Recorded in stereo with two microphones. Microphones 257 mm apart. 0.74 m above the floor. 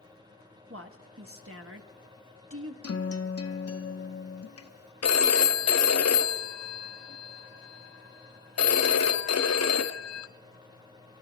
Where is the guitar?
70° left (ahead or behind), 0.8 m.